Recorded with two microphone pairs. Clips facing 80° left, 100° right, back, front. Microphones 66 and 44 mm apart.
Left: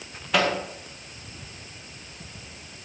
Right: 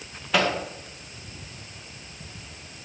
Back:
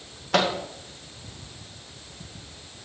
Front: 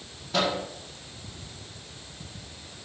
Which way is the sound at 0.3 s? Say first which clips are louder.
Even, back 3 dB; 170° left.